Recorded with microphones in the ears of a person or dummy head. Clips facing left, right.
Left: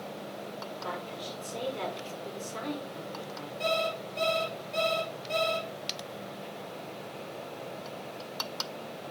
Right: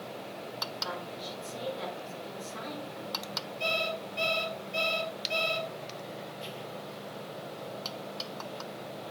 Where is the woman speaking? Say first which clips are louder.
Left 2 dB; 60° left (ahead or behind), 4.5 m.